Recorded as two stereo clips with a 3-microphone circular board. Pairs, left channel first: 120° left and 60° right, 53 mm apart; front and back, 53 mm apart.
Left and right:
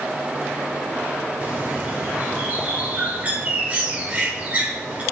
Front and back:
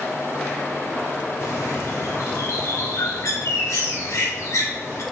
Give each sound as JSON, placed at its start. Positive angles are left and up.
{"t": 1.4, "sound": "a bird", "azimuth_deg": 0, "distance_m": 1.5}